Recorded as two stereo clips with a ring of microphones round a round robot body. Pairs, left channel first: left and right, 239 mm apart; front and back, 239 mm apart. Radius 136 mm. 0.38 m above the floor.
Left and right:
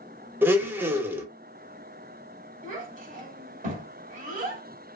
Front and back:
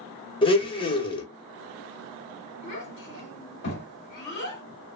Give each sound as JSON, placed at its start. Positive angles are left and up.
{"t": 0.4, "sound": "a blender", "azimuth_deg": -25, "distance_m": 0.7}
{"t": 2.6, "sound": "a child speaking", "azimuth_deg": -40, "distance_m": 1.7}